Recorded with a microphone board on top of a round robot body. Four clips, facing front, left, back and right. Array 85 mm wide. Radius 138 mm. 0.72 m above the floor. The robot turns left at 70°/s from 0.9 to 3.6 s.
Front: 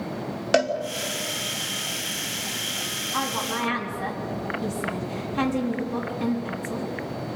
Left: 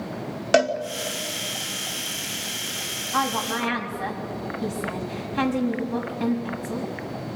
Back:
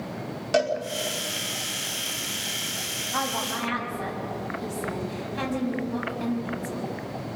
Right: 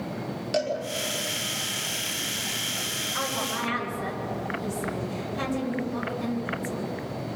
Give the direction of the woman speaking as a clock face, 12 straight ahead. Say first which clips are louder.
Left 6 dB, front 1 dB; 8 o'clock.